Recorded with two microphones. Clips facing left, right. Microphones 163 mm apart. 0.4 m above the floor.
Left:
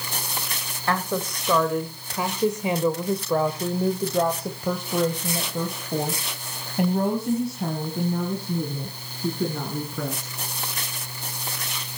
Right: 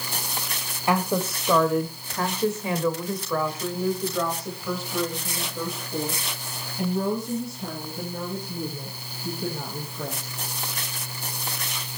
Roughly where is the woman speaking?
Centre.